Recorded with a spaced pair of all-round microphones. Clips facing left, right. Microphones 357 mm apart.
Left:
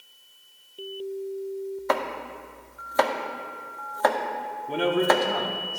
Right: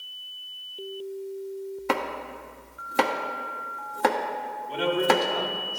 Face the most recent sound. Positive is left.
turn(degrees=60)  # may be behind; listen again after turning